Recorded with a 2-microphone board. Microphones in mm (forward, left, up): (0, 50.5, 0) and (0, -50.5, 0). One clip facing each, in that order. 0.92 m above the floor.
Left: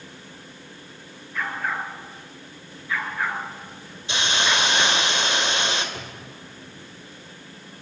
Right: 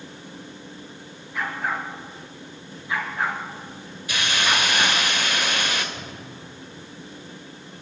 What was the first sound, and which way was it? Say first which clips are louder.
A dog barking: even; 10° right (ahead or behind).